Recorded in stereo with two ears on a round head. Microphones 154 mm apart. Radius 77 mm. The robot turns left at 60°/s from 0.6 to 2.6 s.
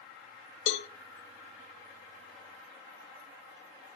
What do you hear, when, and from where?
0.7 s a cowbell: 75° left (ahead or behind), 0.5 m; by 0.9 s 60° left (ahead or behind), 0.5 m